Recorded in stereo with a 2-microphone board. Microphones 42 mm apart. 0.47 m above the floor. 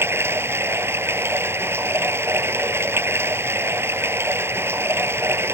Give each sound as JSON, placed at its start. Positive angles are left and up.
{"t": 0.0, "sound": "running water", "side_deg": -90}